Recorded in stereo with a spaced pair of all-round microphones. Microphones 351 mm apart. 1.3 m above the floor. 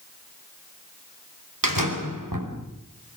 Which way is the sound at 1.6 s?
85° right.